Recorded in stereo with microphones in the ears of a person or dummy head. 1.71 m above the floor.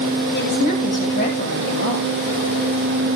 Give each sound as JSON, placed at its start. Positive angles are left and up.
{"t": 0.3, "sound": "a woman speaking", "side_deg": 50, "distance_m": 10.0}